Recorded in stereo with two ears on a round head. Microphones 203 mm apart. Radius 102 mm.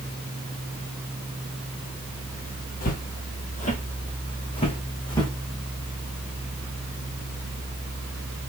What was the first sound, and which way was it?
Footsteps, 40° left (ahead or behind).